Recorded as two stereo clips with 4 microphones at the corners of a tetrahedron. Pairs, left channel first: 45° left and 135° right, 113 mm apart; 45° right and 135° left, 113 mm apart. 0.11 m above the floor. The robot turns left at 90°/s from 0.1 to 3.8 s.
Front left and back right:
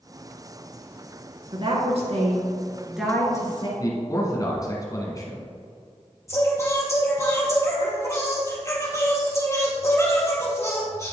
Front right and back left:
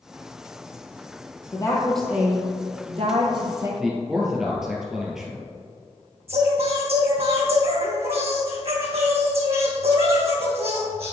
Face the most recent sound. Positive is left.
turn(degrees=110)